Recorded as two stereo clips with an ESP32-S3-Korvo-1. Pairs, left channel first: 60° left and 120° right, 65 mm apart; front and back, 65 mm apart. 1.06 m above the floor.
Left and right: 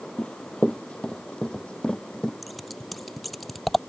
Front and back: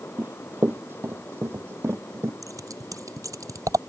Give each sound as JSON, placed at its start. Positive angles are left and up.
{"t": 0.2, "sound": "running footsteps", "azimuth_deg": 130}
{"t": 2.4, "sound": "scissors", "azimuth_deg": 150}